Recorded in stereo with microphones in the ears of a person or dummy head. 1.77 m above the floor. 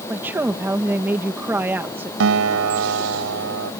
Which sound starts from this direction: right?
A guitar, at 2.2 s.